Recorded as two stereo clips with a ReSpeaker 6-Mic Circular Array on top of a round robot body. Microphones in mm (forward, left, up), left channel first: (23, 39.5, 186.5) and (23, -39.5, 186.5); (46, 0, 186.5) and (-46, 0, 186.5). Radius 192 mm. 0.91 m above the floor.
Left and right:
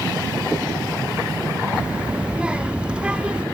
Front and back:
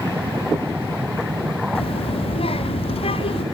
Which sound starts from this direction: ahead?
A child speaking, at 1.8 s.